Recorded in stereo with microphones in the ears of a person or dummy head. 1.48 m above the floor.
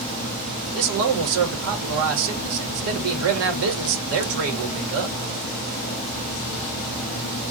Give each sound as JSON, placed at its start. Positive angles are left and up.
{"t": 0.7, "sound": "a man speaking", "side_deg": -70, "distance_m": 1.0}